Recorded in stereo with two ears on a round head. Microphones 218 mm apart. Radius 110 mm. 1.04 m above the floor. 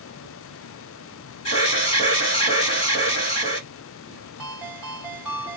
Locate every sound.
1.4 s an alarm: 25° left (ahead or behind), 2.5 m
4.4 s a ringtone: 5° right (ahead or behind), 1.6 m